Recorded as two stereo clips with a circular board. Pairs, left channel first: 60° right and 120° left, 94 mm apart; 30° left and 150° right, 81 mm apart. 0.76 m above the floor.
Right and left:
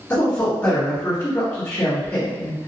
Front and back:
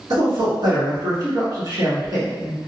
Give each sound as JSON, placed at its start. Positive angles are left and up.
{"t": 0.1, "sound": "a man speaking", "azimuth_deg": -130, "distance_m": 1.5}